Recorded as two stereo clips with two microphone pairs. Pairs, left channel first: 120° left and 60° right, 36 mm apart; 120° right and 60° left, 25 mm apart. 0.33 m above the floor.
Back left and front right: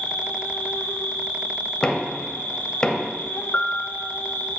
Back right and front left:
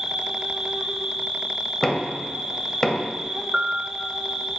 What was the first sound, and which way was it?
An insect, 125° left.